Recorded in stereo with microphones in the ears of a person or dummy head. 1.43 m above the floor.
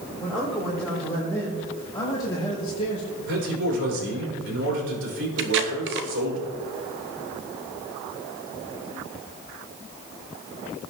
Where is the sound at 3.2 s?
70° right (ahead or behind), 5.5 m.